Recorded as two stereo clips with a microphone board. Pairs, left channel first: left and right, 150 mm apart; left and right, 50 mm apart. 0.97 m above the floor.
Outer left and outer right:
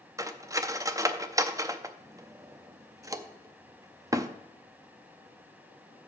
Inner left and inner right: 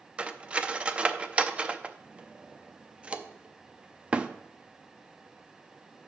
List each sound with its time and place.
0.2 s cutlery clinking: 20° right (ahead or behind), 0.5 m